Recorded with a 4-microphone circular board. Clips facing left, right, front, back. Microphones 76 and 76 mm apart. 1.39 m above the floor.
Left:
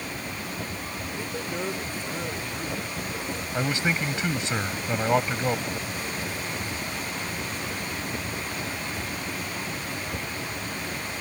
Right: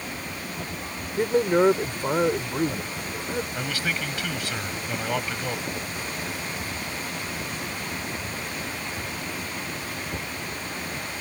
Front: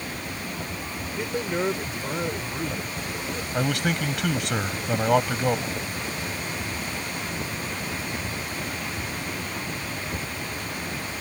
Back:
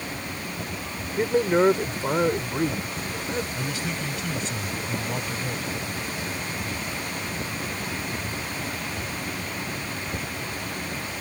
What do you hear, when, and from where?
1.2 s a man speaking: 125° right
3.5 s a man speaking: 25° left